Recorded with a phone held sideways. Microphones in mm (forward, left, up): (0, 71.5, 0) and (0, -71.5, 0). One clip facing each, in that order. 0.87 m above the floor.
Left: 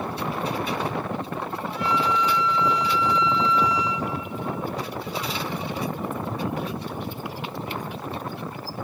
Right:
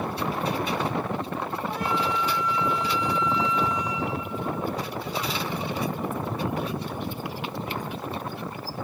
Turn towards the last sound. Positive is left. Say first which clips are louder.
# left 4 dB
turn(degrees=-50)  # may be behind; listen again after turning